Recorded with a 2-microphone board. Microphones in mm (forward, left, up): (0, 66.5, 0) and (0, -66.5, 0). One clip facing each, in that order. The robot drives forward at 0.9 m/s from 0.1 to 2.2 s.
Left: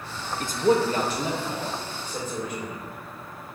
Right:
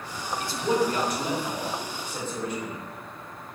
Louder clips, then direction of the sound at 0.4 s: Left 4 dB; 45° left (ahead or behind).